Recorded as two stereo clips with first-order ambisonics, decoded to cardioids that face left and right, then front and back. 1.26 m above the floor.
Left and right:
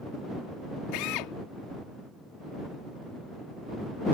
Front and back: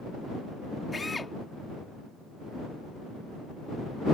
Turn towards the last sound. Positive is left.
turn(degrees=80)